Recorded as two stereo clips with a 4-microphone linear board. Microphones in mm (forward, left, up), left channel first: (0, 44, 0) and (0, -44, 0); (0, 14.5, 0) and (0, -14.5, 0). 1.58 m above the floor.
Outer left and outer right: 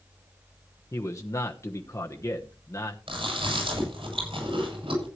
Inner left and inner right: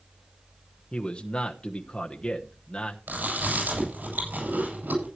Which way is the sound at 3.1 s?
90° right.